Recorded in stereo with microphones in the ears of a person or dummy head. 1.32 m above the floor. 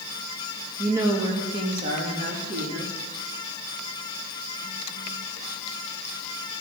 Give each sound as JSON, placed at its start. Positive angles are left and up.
{"t": 0.8, "sound": "a woman speaking", "side_deg": -10, "distance_m": 2.0}